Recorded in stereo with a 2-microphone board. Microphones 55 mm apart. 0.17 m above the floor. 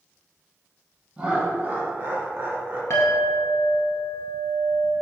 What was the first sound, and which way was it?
Laughter, 20° right (ahead or behind).